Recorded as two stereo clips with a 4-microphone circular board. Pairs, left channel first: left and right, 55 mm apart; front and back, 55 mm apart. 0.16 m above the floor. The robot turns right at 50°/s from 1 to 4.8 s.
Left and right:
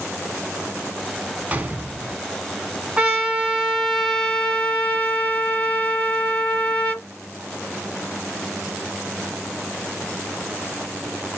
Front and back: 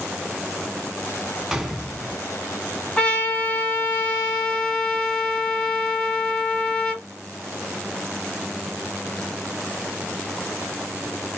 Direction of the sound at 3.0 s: 45° right.